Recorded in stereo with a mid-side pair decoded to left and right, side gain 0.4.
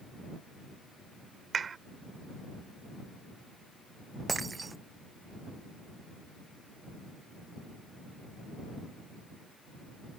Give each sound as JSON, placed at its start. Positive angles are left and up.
{"t": 1.5, "sound": "a clap", "azimuth_deg": -50}
{"t": 4.3, "sound": "breaking glass", "azimuth_deg": -30}